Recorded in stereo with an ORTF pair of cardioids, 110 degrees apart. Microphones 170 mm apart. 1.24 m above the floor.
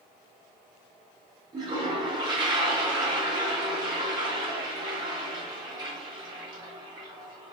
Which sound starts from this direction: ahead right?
A toilet flushing, at 1.5 s.